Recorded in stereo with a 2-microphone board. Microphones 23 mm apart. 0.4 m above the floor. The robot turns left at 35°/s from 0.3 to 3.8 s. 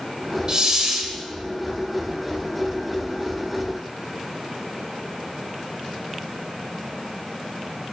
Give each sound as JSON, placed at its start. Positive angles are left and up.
{"t": 0.5, "sound": "a hiss", "side_deg": -35, "distance_m": 1.2}